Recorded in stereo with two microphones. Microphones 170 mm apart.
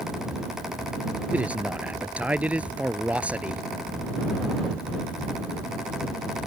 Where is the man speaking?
10° right (ahead or behind).